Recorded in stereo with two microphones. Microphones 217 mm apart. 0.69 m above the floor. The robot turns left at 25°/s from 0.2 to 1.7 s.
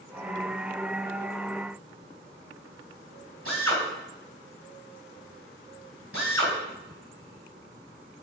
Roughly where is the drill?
Right.